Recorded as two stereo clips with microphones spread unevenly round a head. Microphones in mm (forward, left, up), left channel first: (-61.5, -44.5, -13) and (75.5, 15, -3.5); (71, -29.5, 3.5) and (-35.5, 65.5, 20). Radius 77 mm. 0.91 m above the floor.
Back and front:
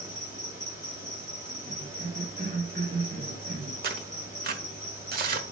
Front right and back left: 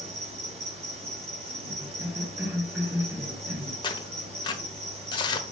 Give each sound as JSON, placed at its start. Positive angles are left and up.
{"t": 0.0, "sound": "an insect", "azimuth_deg": 95, "distance_m": 2.5}
{"t": 1.7, "sound": "a cough", "azimuth_deg": 60, "distance_m": 3.0}
{"t": 3.8, "sound": "tearing paper", "azimuth_deg": 15, "distance_m": 1.2}